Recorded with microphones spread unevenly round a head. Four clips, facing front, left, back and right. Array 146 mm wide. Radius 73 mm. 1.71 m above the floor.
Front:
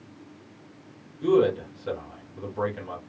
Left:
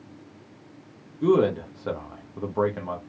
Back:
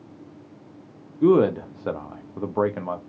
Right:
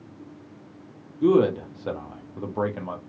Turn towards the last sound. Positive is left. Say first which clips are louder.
# right 1 dB, back 4 dB
turn(degrees=-175)